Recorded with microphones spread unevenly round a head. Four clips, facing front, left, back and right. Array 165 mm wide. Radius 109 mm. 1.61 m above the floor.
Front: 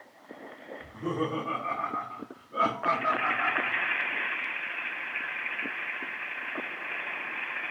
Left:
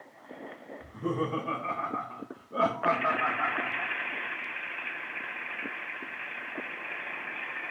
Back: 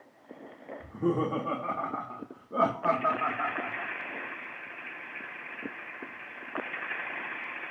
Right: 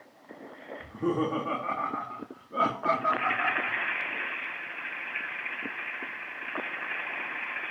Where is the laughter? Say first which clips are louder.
Right 3 dB, back 3 dB; 165° right, 2.5 m; by 3.9 s 145° left, 3.5 m.